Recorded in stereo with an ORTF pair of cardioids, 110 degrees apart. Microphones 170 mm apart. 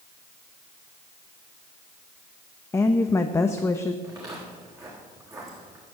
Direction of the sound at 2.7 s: 15° left.